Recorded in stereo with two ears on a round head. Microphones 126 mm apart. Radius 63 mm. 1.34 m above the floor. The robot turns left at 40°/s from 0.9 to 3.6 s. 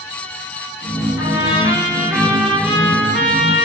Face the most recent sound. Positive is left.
turn(degrees=-45)